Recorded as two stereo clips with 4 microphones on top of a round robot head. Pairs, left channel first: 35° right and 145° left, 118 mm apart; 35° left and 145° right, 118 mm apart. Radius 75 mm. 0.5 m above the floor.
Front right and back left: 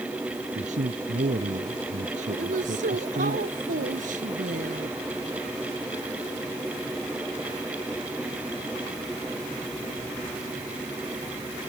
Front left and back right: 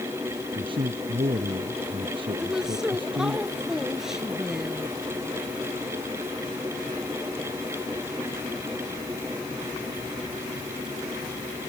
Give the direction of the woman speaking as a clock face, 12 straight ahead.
8 o'clock.